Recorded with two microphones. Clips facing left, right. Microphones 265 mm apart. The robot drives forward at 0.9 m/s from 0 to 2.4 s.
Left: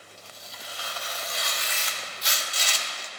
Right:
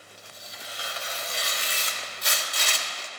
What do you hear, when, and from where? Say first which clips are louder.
0.2 s tearing paper: right 1 dB; 15° right (ahead or behind), 2.5 m; by 3.1 s 65° right (ahead or behind), 0.7 m